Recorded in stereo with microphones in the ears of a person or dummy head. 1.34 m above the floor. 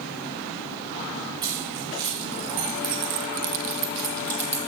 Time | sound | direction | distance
1.4 | keys jangling | 25° right (ahead or behind) | 3 m